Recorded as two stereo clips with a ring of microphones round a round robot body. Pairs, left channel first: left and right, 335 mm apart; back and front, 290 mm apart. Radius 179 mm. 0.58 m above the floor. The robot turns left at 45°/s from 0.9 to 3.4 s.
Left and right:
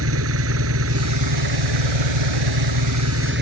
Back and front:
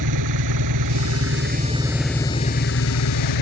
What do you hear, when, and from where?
0.0 s an engine running: 40° right; by 3.4 s 150° right